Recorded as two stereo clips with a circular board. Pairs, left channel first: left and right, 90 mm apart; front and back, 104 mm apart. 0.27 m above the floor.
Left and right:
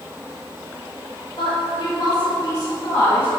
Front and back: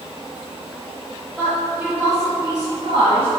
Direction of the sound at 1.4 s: 80° left.